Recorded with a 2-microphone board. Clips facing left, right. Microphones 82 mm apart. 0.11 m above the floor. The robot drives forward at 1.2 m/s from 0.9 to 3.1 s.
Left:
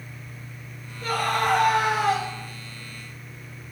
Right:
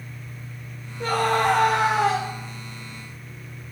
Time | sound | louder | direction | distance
1.0 | a scream | right 3 dB | 80° right | 8.5 m